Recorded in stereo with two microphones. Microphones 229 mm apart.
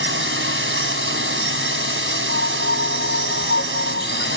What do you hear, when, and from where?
0.0 s a drone: 60° right (ahead or behind)
2.3 s a piano: 55° left (ahead or behind)